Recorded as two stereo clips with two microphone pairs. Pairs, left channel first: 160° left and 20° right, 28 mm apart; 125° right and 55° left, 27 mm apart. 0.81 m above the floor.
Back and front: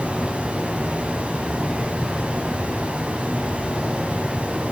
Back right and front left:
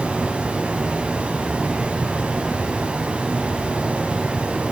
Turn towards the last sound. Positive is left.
turn(degrees=15)